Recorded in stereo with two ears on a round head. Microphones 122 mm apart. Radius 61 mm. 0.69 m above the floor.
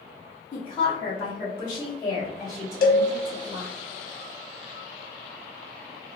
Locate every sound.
0.5 s a woman speaking: 40° left (ahead or behind), 1.7 m; by 3.8 s 20° right (ahead or behind), 1.9 m
2.8 s a cowbell: 65° left (ahead or behind), 0.6 m